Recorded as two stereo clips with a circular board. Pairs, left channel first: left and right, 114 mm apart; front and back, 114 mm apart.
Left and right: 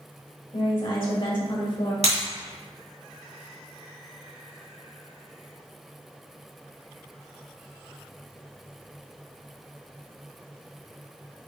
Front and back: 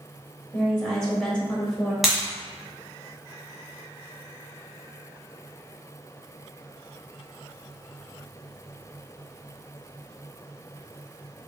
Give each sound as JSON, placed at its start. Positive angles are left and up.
{"t": 0.5, "sound": "a woman speaking", "azimuth_deg": 80, "distance_m": 1.4}
{"t": 2.0, "sound": "breaking glass", "azimuth_deg": -90, "distance_m": 1.9}